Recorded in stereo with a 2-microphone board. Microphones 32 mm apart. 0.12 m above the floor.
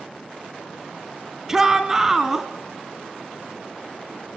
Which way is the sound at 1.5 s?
10° right (ahead or behind).